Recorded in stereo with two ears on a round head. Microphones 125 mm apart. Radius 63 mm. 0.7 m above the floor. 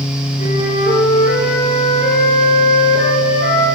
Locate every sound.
0.4 s a flute: 55° left (ahead or behind), 7 m